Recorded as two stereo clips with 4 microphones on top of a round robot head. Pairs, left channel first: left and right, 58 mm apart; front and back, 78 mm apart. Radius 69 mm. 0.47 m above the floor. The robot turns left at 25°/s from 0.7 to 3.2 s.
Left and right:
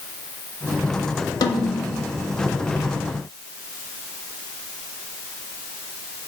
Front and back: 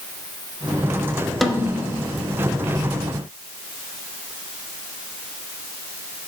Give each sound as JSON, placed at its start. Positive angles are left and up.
{"t": 1.4, "sound": "a snare drum", "azimuth_deg": 90, "distance_m": 0.7}